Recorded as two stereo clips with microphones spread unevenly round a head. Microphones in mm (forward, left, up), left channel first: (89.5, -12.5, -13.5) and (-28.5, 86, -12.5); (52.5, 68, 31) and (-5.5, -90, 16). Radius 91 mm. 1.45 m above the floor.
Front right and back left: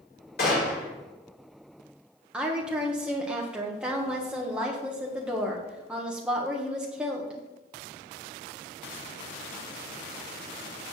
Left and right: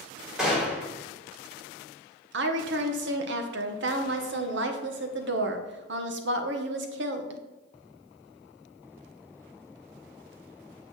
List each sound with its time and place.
0.4 s a gunshot: 25° right, 3.5 m
2.3 s a woman speaking: 135° right, 1.2 m